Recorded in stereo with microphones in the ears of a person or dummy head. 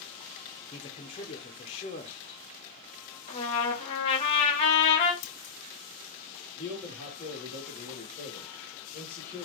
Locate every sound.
0.7 s a man speaking: 25° left (ahead or behind), 0.6 m
3.3 s a trumpet: 30° left (ahead or behind), 1.1 m
5.2 s scissors: 60° left (ahead or behind), 2.5 m
6.5 s a man speaking: 5° left (ahead or behind), 1.5 m